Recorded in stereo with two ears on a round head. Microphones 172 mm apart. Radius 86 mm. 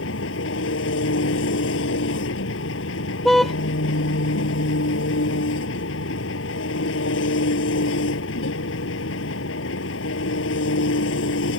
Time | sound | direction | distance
0.0 | an engine running | 70° left (ahead or behind) | ?
3.2 | a car horn | centre (ahead or behind) | ?